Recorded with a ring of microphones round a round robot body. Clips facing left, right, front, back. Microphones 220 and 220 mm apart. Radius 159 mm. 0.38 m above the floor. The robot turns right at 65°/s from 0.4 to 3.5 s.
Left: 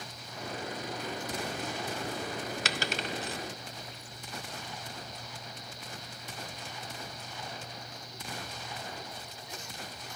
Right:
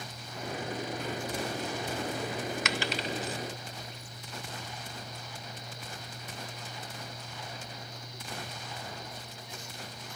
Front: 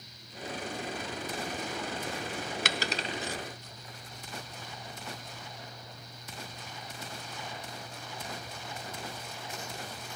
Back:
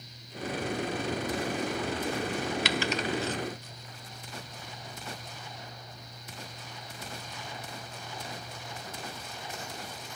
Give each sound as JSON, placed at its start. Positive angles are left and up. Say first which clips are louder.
{"t": 2.6, "sound": "a dropped coin", "louder": "right 2 dB, back 5 dB", "azimuth_deg": 35, "distance_m": 0.7}